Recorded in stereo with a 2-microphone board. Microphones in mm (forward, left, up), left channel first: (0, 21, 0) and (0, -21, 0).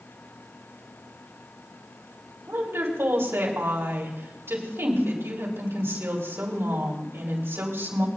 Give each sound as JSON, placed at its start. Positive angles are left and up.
{"t": 2.5, "sound": "a woman speaking", "side_deg": -75, "distance_m": 3.5}